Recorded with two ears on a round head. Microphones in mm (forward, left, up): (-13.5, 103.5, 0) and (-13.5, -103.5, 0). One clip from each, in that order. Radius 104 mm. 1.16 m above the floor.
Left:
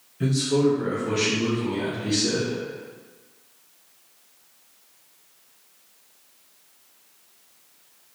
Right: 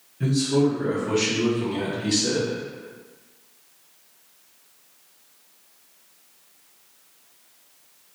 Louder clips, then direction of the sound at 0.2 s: Even; 30° left (ahead or behind).